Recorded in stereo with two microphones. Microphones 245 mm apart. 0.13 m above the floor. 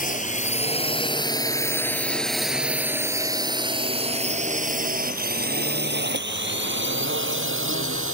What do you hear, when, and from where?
0.0 s a drone: 35° left (ahead or behind); by 8.1 s 55° right (ahead or behind)